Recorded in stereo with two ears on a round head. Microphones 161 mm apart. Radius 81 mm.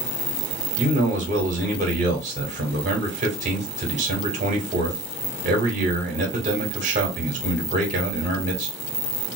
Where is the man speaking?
40° right (ahead or behind), 1.8 m.